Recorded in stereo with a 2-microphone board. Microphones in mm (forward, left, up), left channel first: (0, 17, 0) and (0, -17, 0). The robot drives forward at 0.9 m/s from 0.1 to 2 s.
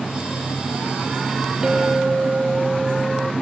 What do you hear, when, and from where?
1.6 s a clink: 20° right (ahead or behind)